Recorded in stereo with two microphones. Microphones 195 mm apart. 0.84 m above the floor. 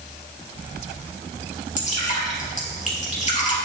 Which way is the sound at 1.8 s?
40° left (ahead or behind).